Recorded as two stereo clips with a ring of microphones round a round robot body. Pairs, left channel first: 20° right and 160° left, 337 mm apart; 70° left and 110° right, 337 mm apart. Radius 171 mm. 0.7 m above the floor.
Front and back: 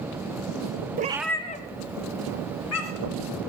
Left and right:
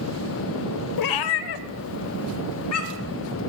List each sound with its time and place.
1.0 s a cat meowing: 95° left, 0.7 m; by 3.2 s 20° left, 2.5 m